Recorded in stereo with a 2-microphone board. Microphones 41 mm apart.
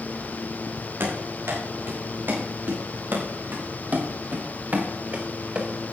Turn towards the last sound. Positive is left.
turn(degrees=-30)  # may be behind; listen again after turning